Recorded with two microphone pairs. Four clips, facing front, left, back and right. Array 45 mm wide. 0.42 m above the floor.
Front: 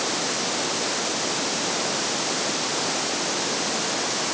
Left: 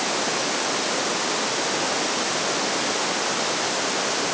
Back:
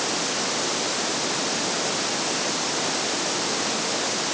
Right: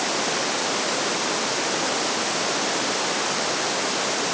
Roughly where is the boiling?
No boiling in this recording.